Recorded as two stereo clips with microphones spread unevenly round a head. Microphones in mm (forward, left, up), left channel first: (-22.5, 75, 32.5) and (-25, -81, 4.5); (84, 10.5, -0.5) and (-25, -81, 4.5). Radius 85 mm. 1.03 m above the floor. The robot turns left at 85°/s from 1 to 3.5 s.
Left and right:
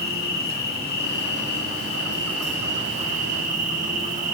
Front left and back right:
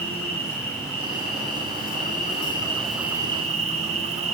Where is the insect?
115° left, 1.8 m; by 4.3 s 100° right, 1.8 m.